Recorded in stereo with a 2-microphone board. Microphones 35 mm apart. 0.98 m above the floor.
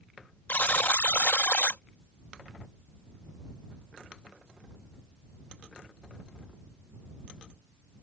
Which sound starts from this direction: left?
A buzzer, at 0.5 s.